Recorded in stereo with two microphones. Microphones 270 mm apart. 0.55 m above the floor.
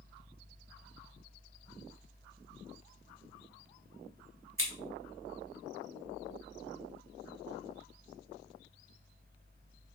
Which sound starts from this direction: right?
Scissors, at 4.6 s.